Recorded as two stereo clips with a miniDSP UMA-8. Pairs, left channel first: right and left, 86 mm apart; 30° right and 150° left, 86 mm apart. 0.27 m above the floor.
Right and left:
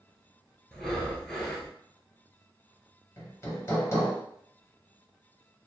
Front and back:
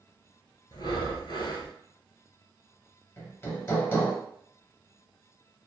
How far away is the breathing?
About 0.8 m.